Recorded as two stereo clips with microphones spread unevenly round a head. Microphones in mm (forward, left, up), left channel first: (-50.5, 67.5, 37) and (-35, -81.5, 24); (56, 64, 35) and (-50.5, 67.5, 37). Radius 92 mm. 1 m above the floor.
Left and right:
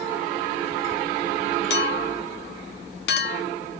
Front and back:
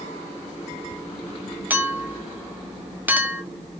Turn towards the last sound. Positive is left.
turn(degrees=105)